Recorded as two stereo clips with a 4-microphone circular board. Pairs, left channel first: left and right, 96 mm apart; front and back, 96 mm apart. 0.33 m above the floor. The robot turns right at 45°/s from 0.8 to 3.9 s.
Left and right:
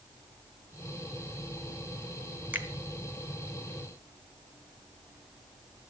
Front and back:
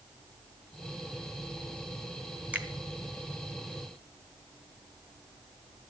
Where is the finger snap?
130° right, 1.2 m; by 2.7 s 125° right, 1.2 m.